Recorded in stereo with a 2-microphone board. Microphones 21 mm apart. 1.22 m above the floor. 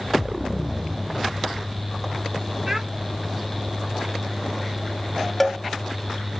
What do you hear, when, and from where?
2.7 s a child speaking: 25° right (ahead or behind), 1.0 m
5.4 s a cowbell: 5° left (ahead or behind), 1.0 m